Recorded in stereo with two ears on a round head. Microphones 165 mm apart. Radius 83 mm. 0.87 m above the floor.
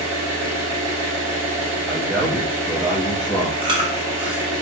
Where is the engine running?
80° right, 1.2 m.